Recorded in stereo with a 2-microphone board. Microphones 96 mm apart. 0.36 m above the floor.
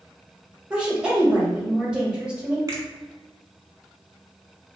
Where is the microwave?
No microwave in this recording.